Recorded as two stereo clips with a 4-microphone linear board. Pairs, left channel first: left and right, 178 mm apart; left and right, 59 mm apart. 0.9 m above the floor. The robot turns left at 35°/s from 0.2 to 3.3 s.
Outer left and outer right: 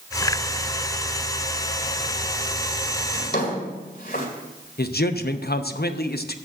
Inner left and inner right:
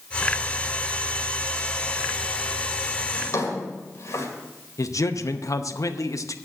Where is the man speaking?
65° left (ahead or behind), 0.7 m.